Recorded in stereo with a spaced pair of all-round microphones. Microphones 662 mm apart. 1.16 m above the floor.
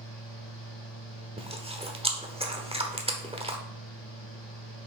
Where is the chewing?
10° right (ahead or behind), 0.9 m.